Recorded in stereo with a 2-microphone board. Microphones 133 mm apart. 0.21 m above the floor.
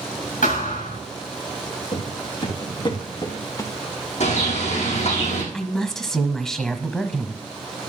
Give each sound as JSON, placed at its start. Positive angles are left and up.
{"t": 0.4, "sound": "a thud", "side_deg": 75, "distance_m": 7.5}
{"t": 1.9, "sound": "footsteps", "side_deg": 45, "distance_m": 3.5}
{"t": 4.2, "sound": "a bird", "side_deg": 55, "distance_m": 4.5}
{"t": 5.5, "sound": "a woman speaking", "side_deg": 5, "distance_m": 1.1}